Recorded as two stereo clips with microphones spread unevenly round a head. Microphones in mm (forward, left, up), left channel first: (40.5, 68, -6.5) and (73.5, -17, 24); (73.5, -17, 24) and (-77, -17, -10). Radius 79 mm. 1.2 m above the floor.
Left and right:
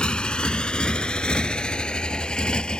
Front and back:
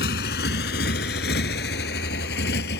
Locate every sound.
0.0 s a motorcycle: 25° left; by 2.8 s 30° left